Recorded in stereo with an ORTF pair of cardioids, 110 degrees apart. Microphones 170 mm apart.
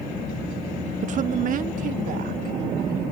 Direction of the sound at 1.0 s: 45° right.